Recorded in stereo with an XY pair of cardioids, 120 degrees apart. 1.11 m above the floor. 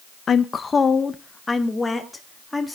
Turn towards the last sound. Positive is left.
turn(degrees=10)